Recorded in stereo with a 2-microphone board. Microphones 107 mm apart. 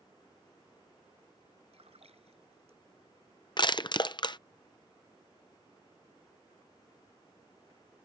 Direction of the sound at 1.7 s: 70° right (ahead or behind).